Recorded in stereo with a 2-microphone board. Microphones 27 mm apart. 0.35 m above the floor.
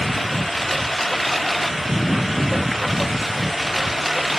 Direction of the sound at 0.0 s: 10° left (ahead or behind).